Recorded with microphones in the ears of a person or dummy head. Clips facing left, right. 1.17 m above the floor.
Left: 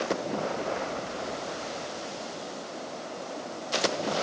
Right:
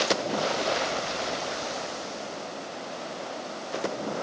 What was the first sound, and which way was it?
Only background noise.